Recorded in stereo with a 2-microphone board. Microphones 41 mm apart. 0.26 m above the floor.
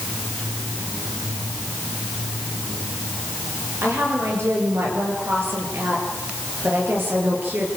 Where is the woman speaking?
70° right (ahead or behind), 6.5 m; by 7.7 s 50° right (ahead or behind), 6 m.